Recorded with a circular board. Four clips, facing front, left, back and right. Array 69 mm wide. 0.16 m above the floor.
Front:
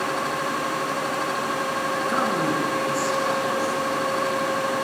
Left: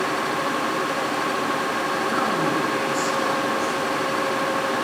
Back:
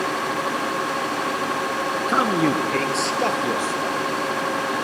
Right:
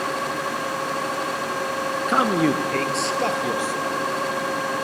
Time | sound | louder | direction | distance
2.1 | a man speaking | right 6 dB, back 5 dB | 120° right | 1.4 m